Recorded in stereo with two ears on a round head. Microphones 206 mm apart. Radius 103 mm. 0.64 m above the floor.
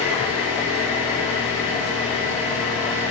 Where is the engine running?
30° left (ahead or behind), 3.5 m.